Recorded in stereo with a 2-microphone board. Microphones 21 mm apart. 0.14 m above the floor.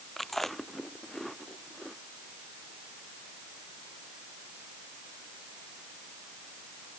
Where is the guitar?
I don't hear a guitar.